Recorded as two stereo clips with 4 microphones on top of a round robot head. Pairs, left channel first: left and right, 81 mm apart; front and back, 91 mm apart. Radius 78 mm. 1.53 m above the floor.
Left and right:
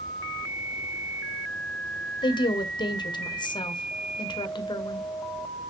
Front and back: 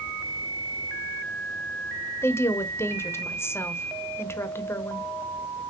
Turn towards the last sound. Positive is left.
turn(degrees=65)